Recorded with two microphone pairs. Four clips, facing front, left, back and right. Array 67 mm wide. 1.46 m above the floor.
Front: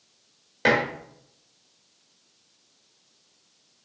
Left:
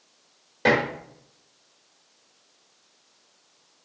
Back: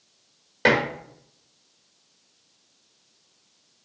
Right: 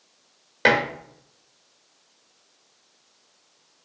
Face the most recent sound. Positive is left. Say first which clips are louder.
# right 1 dB, back 1 dB
turn(degrees=-95)